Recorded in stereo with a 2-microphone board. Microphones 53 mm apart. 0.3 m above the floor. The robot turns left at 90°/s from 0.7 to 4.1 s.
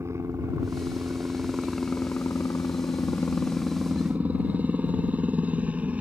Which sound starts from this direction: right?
A helicopter, at 0.0 s.